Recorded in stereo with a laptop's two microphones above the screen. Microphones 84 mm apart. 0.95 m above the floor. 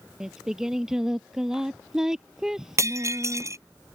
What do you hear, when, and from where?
0.2 s singing: 5° right (ahead or behind)
2.8 s breaking glass: 35° right (ahead or behind)